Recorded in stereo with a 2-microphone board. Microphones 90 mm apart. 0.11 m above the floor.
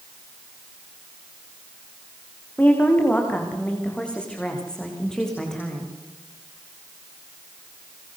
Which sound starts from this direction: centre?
A woman speaking, at 2.6 s.